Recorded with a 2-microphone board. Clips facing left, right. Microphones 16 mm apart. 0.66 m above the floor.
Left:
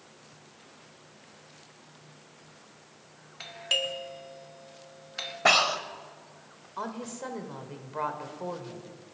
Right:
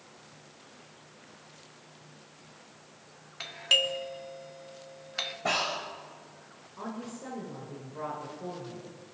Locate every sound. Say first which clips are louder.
3.4 s a doorbell: right 3 dB; 10° right (ahead or behind), 0.9 m
5.5 s breathing: left 8 dB; 50° left (ahead or behind), 1.1 m
6.8 s a woman speaking: left 3 dB; 70° left (ahead or behind), 1.9 m